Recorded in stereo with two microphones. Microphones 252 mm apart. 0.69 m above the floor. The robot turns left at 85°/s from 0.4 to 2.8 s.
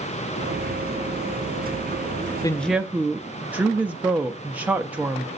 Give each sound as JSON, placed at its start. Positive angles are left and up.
{"t": 2.4, "sound": "a woman speaking", "azimuth_deg": 20, "distance_m": 0.6}